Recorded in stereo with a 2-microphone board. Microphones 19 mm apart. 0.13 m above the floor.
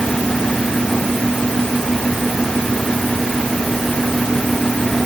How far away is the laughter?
No laughter in this recording.